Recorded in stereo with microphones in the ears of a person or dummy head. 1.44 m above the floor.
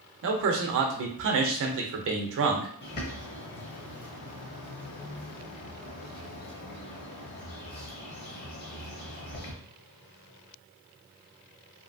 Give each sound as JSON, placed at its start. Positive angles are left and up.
{"t": 0.2, "sound": "a man speaking", "side_deg": -60, "distance_m": 0.6}
{"t": 2.8, "sound": "a bird", "side_deg": 45, "distance_m": 0.7}